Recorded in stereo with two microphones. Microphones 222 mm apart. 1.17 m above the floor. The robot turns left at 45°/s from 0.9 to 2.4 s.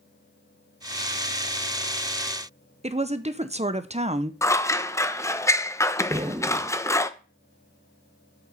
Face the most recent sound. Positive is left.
turn(degrees=-25)  # may be behind; listen again after turning